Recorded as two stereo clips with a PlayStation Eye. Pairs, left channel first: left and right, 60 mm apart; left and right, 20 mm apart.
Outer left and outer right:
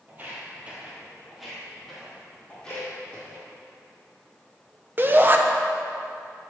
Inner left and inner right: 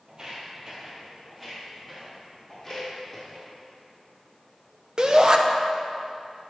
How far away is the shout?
About 0.7 m.